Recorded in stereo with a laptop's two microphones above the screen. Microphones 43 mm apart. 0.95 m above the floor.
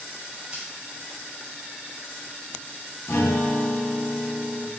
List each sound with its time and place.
0.5 s scissors: 25° right (ahead or behind), 4.5 m
3.1 s a guitar: 80° left, 1.3 m